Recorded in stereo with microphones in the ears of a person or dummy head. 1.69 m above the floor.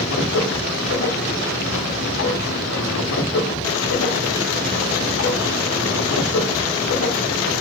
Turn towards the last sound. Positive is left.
turn(degrees=85)